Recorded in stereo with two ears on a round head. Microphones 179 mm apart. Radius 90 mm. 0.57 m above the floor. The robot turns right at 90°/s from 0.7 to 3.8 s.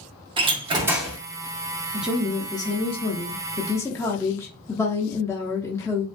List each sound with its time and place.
0.4 s a door slam: 30° right, 0.6 m; by 1.2 s 15° left, 0.6 m
1.9 s a woman speaking: 10° right (ahead or behind), 0.6 m; by 6.1 s 15° left (ahead or behind), 0.6 m